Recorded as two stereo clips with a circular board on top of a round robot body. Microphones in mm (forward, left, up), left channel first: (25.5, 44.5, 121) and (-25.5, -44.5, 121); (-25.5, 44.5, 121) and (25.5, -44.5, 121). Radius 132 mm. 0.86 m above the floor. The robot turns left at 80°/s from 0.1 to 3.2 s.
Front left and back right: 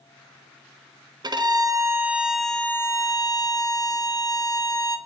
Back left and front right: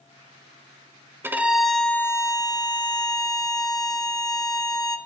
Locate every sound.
1.2 s a violin: 115° right, 0.8 m; by 5.0 s 85° left, 0.8 m